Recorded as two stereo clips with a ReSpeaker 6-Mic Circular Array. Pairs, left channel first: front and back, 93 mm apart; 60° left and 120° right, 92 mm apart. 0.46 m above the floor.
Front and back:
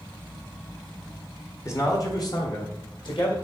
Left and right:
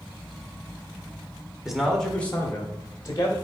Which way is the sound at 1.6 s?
35° right.